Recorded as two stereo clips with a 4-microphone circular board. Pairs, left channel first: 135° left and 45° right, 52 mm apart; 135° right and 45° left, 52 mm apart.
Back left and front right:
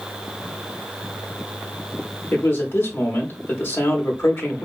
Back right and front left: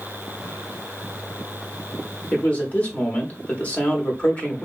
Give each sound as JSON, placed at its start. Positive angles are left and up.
{"t": 2.3, "sound": "a man speaking", "azimuth_deg": 165, "distance_m": 1.1}